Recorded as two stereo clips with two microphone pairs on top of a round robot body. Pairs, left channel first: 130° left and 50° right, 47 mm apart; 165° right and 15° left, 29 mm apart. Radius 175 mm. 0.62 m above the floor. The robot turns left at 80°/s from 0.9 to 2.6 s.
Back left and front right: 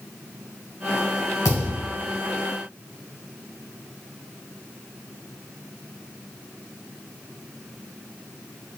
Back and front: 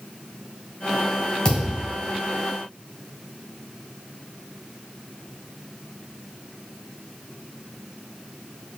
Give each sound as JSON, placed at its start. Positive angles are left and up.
{"t": 1.4, "sound": "a thud", "azimuth_deg": 130, "distance_m": 1.6}